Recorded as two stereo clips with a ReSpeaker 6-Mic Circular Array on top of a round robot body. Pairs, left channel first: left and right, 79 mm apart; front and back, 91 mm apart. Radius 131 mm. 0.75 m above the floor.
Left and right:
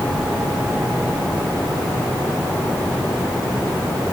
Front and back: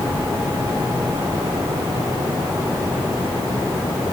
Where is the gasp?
No gasp in this recording.